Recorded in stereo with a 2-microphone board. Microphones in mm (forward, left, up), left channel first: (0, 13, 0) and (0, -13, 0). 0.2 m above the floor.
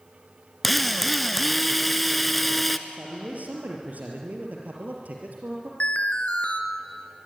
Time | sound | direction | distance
0.6 | a drill | 5° left (ahead or behind) | 1.2 m
2.9 | a man speaking | 70° right (ahead or behind) | 4.5 m
5.8 | an alarm | 55° left (ahead or behind) | 3 m